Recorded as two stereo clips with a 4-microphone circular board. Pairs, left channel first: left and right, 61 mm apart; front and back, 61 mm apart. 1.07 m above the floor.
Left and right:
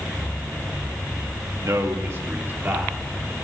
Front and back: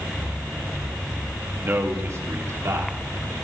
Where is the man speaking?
125° right, 1.6 m; by 3.0 s 155° right, 3 m.